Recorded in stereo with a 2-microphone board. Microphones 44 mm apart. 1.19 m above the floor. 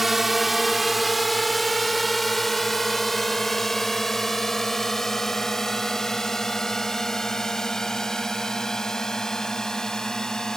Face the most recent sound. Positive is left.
turn(degrees=10)  # may be behind; listen again after turning